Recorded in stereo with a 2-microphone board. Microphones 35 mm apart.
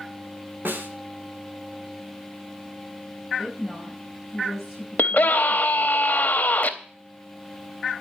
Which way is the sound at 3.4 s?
5° right (ahead or behind).